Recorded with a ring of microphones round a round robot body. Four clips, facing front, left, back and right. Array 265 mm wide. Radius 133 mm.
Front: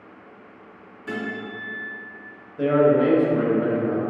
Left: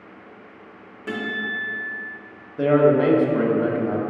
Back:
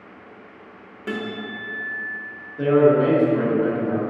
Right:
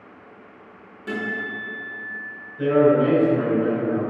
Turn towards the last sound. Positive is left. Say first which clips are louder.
# even, back 2 dB
turn(degrees=95)